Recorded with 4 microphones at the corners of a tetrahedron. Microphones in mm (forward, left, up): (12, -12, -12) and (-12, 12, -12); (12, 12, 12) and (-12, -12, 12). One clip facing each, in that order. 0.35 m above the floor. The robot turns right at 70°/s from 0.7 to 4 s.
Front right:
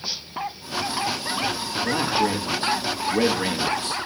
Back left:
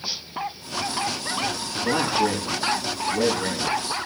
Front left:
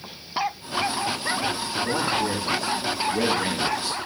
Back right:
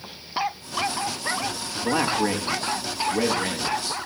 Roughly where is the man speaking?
Behind right.